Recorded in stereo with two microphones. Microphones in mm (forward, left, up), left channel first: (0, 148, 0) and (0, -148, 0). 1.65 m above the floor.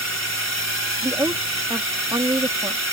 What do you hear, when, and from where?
0.0 s a drone: 70° left (ahead or behind)
1.0 s a woman speaking: 10° right (ahead or behind)